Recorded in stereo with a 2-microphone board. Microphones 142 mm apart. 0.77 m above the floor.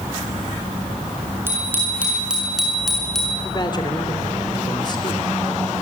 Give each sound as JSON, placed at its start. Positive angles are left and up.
{"t": 1.5, "sound": "a bicycle bell", "side_deg": -15, "distance_m": 7.0}
{"t": 3.4, "sound": "a man speaking", "side_deg": 30, "distance_m": 2.5}